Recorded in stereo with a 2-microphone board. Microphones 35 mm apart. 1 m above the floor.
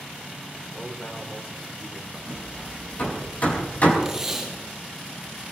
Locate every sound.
0.7 s a man speaking: 35° left (ahead or behind), 4 m
2.3 s hammering: 45° left (ahead or behind), 4.5 m
4.0 s tape being pulled: 10° right (ahead or behind), 8.5 m